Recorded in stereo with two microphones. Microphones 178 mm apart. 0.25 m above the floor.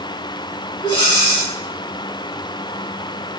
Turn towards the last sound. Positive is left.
turn(degrees=30)  # may be behind; listen again after turning